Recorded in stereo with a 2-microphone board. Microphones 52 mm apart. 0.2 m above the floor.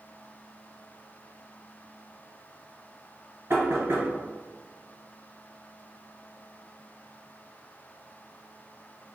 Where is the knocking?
60° right (ahead or behind), 1.4 m.